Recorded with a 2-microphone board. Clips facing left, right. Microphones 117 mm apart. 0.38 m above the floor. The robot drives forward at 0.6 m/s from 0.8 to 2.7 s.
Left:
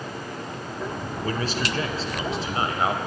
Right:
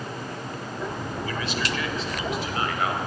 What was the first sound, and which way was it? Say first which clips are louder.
A man speaking: left 4 dB; 40° left (ahead or behind).